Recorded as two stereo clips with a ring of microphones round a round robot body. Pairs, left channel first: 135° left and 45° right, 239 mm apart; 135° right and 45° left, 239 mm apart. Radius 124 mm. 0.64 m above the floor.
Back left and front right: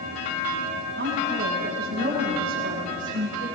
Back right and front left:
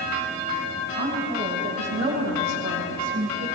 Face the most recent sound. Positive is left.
turn(degrees=-5)